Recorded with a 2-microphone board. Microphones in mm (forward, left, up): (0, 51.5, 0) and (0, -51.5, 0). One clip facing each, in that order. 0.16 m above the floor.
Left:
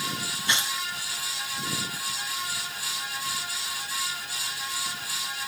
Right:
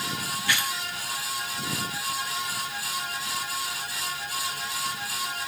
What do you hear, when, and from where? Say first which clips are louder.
0.5 s tearing paper: right 1 dB; 20° left (ahead or behind)